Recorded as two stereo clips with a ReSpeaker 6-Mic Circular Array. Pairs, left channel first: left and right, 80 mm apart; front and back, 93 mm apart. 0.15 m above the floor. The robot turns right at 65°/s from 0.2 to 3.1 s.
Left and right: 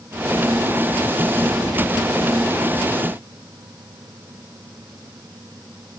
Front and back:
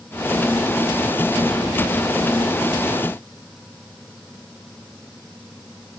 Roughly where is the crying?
No crying in this recording.